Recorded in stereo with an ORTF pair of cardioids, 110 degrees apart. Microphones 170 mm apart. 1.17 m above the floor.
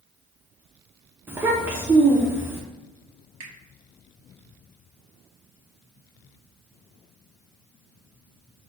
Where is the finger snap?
45° right, 1.1 m.